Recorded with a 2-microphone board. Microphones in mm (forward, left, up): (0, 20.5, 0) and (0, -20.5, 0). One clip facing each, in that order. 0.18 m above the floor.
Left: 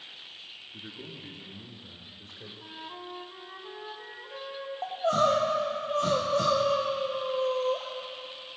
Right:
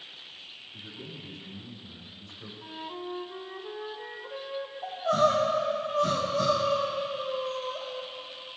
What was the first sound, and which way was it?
A man speaking, 50° left (ahead or behind).